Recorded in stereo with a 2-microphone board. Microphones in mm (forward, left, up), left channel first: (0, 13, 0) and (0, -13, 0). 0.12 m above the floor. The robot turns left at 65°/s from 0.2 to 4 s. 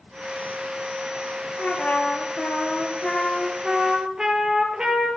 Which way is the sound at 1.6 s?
125° left.